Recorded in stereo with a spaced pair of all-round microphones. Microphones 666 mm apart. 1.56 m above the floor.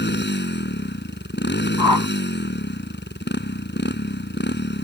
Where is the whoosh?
35° right (ahead or behind).